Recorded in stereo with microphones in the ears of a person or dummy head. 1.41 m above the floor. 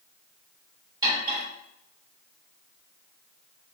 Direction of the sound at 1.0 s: 20° right (ahead or behind).